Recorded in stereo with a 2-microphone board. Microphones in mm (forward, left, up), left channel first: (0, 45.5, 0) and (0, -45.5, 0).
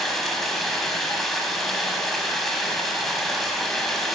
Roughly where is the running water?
Centre.